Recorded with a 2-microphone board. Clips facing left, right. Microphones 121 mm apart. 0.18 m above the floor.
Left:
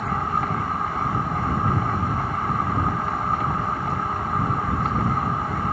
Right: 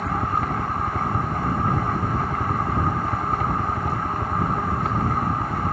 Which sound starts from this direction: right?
A helicopter, at 0.0 s.